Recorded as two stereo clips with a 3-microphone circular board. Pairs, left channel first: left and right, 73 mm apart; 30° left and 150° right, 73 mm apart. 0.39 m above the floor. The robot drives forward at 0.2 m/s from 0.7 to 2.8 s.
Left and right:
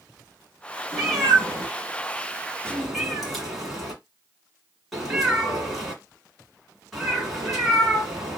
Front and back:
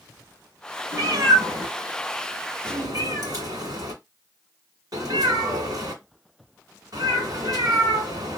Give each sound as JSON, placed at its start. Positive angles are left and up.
{"t": 0.9, "sound": "a cat meowing", "azimuth_deg": 180, "distance_m": 1.3}